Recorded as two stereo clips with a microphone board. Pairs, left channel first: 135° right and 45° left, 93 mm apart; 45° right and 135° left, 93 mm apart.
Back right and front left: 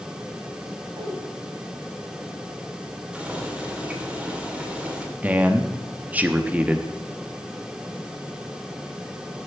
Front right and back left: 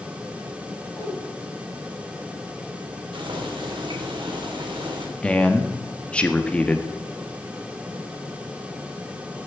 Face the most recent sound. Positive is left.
turn(degrees=10)